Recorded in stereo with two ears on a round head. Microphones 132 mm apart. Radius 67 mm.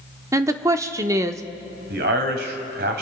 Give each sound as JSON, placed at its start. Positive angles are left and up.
{"t": 0.3, "sound": "a woman speaking", "side_deg": -20, "distance_m": 0.7}
{"t": 1.9, "sound": "a man speaking", "side_deg": -70, "distance_m": 2.5}